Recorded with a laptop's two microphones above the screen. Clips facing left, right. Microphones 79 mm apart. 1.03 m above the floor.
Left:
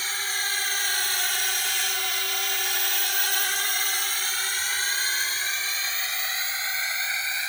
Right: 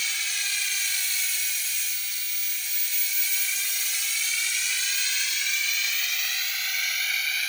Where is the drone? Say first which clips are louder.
Left 3 dB; 40° left (ahead or behind); by 7.5 s 25° left (ahead or behind).